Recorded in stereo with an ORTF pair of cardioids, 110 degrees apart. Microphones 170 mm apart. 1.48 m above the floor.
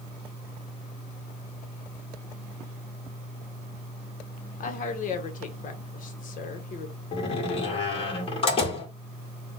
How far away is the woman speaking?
About 1.0 m.